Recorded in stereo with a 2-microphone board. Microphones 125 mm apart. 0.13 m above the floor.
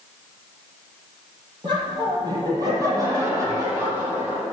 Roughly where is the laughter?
Right.